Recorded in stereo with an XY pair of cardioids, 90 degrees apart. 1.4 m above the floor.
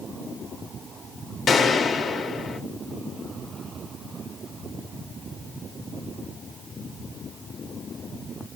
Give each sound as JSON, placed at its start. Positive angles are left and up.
{"t": 1.5, "sound": "a gunshot", "azimuth_deg": 60, "distance_m": 1.1}